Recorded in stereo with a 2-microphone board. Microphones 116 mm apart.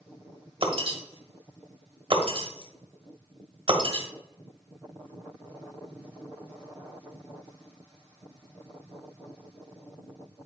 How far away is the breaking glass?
About 1.7 m.